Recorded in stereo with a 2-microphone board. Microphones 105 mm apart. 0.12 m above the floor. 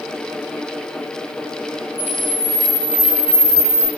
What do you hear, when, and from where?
2.0 s a camera shutter: 35° right (ahead or behind), 4.5 m